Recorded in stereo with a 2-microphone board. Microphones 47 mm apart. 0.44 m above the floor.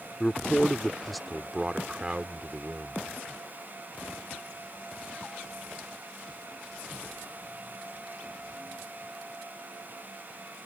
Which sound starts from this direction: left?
A man speaking, at 0.2 s.